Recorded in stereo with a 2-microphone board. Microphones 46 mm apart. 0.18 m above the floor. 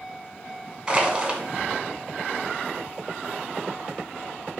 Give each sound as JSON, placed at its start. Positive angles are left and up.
{"t": 0.9, "sound": "crushing", "side_deg": -20, "distance_m": 0.6}